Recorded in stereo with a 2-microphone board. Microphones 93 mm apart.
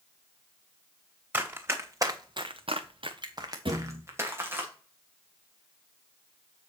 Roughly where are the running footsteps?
Right.